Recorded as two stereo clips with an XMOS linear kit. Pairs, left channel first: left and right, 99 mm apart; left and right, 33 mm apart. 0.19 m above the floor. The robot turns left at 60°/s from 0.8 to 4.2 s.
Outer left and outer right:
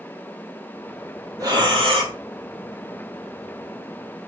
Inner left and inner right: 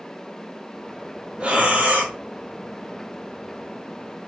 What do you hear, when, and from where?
1.4 s breathing: 40° right, 1.4 m; by 2.1 s 85° right, 1.4 m